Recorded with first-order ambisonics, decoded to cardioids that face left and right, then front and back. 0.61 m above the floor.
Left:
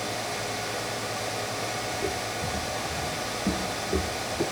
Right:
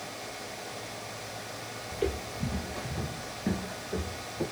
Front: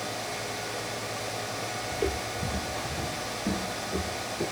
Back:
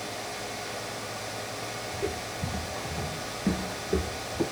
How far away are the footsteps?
About 1.2 m.